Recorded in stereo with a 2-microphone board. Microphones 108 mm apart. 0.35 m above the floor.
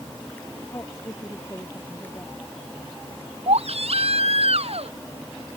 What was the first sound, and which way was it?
A woman speaking, 25° left (ahead or behind).